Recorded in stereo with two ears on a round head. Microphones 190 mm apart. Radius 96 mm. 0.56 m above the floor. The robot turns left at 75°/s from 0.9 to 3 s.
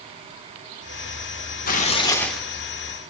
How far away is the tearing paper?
About 0.8 m.